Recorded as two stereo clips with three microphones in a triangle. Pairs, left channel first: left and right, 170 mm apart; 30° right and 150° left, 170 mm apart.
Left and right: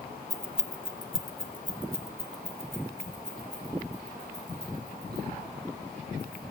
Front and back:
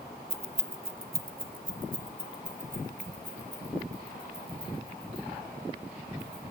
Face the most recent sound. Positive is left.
turn(degrees=95)